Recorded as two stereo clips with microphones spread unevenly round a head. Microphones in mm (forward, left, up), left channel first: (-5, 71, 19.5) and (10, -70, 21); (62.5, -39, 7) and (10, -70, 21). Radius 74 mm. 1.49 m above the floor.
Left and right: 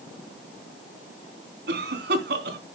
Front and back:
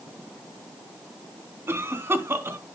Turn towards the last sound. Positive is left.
turn(degrees=-100)